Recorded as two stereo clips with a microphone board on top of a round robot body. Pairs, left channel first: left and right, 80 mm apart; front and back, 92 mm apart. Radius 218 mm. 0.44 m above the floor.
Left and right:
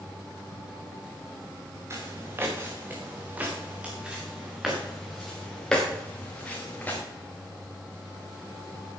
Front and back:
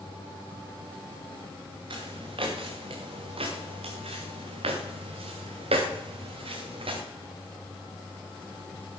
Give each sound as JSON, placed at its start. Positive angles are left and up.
{"t": 1.9, "sound": "footsteps", "azimuth_deg": -150, "distance_m": 4.5}